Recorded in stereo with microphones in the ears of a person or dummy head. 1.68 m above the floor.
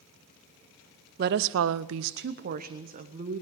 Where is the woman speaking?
50° right (ahead or behind), 0.6 m; by 3.4 s 40° right (ahead or behind), 1.6 m.